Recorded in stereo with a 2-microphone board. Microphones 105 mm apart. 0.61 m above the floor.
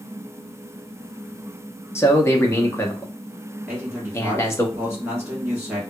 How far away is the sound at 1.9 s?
About 0.8 m.